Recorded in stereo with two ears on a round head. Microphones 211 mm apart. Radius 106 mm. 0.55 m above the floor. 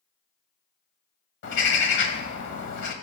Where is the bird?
55° left (ahead or behind), 1.4 m.